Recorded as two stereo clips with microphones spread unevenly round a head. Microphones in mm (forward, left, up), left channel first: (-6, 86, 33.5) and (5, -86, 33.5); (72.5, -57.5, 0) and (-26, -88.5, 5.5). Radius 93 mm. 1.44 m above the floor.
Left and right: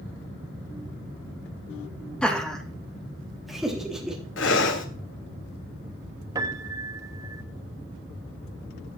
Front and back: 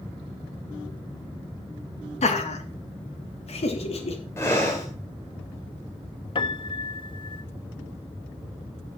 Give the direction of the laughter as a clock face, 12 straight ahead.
12 o'clock.